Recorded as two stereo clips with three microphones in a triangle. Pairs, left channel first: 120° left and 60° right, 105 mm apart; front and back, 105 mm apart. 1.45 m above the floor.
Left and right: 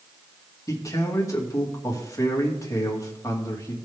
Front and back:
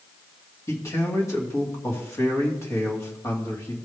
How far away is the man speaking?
About 2.5 m.